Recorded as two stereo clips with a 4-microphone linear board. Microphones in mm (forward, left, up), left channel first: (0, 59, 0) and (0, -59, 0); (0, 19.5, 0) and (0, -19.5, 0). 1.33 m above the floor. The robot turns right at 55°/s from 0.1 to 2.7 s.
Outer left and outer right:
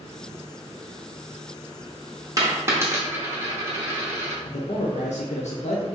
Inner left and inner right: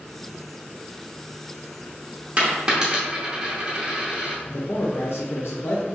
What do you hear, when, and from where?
2.4 s a dropped coin: 30° right (ahead or behind), 0.8 m; by 4.3 s 20° right (ahead or behind), 0.8 m
4.5 s a man speaking: 75° left (ahead or behind), 0.5 m